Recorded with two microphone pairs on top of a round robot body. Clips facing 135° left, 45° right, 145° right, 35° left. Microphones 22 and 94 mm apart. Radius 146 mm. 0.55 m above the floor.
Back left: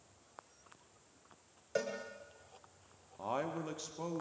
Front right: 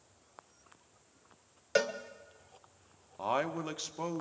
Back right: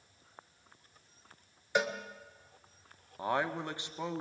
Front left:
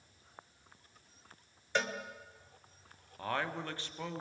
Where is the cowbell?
70° right, 1.6 m.